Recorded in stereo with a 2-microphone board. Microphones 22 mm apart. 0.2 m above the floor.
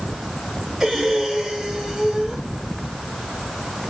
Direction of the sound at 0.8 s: 30° right (ahead or behind).